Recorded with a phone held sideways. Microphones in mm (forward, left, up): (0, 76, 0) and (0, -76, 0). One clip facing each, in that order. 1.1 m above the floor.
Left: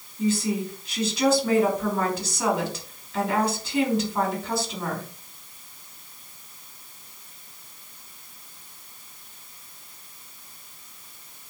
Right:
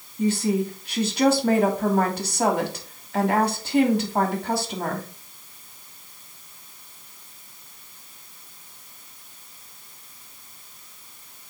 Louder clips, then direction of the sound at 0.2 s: Right 2 dB; 55° right (ahead or behind).